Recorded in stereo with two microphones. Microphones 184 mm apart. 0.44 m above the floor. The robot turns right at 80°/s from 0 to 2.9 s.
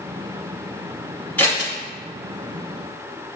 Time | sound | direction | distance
1.4 | scissors | 10° left (ahead or behind) | 1.8 m